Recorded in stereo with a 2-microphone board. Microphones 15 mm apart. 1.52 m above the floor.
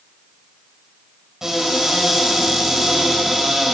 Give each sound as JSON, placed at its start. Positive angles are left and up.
{"t": 1.4, "sound": "a cupboard door", "side_deg": -35, "distance_m": 4.5}